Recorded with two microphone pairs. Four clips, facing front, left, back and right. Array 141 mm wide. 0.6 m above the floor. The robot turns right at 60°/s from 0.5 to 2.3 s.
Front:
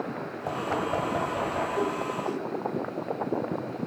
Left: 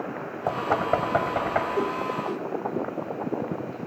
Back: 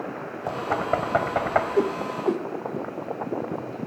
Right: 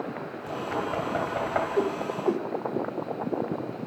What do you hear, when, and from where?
0.5 s knocking: 105° left, 2.5 m; by 1.7 s 175° left, 2.5 m
1.8 s a whoosh: straight behind, 1.1 m; by 2.5 s 145° right, 1.1 m